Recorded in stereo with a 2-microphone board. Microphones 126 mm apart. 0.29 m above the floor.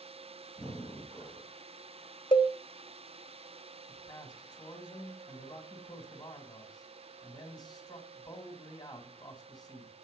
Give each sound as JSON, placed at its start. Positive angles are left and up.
{"t": 0.6, "sound": "breathing", "side_deg": -10, "distance_m": 3.5}
{"t": 2.3, "sound": "a cowbell", "side_deg": 40, "distance_m": 0.8}
{"t": 3.9, "sound": "a man speaking", "side_deg": 30, "distance_m": 1.8}